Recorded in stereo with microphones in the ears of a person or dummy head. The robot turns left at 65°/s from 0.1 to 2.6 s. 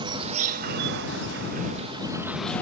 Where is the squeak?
I don't hear a squeak.